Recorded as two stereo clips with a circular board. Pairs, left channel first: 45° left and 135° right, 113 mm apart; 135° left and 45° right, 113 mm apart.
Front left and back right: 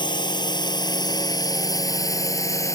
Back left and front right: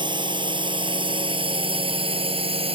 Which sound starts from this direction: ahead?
A drone, at 0.0 s.